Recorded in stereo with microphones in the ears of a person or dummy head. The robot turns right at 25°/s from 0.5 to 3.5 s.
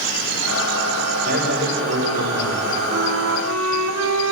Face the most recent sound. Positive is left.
turn(degrees=-70)  # may be behind; listen again after turning